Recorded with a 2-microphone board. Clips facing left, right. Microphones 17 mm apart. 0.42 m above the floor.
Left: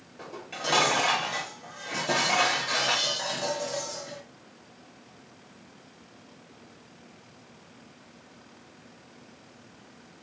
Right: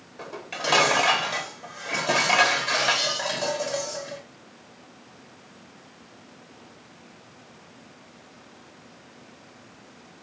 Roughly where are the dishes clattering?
Right.